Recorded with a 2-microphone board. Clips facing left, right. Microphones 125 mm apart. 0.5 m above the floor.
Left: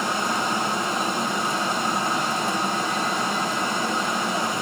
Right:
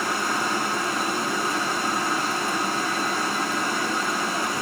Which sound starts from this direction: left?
Running water, at 0.0 s.